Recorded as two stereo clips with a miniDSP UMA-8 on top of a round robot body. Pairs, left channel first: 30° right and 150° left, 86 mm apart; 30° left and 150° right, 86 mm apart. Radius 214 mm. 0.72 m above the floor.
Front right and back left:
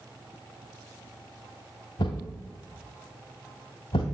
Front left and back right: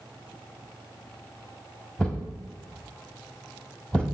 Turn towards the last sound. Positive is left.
turn(degrees=-50)